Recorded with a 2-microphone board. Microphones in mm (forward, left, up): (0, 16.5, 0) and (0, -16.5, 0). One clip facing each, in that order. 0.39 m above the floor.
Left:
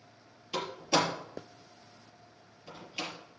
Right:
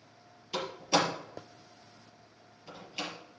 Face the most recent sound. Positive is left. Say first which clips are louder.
# even
turn(degrees=5)  # may be behind; listen again after turning